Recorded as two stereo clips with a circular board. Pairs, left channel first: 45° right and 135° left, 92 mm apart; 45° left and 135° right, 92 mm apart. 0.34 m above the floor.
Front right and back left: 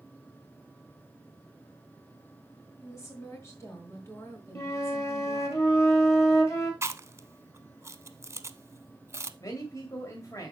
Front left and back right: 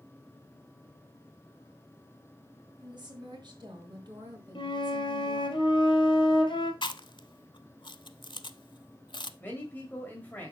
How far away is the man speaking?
About 1.7 m.